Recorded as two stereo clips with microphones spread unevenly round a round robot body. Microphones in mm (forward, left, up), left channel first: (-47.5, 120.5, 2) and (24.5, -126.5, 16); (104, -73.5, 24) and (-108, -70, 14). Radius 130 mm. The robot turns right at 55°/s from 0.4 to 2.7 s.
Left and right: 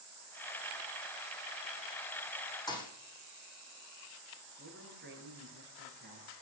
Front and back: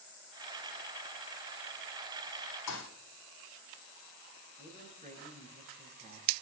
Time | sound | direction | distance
2.7 | a thud | 30° left | 5 m
4.6 | a man speaking | 125° right | 7.5 m